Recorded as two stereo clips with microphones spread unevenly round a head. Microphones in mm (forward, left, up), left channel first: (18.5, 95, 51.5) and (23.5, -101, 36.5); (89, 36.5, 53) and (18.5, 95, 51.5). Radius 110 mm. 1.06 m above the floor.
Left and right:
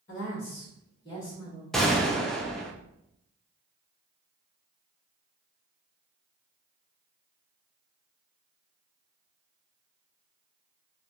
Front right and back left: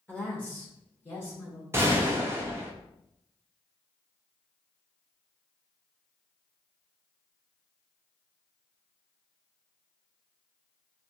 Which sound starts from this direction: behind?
A gunshot, at 1.7 s.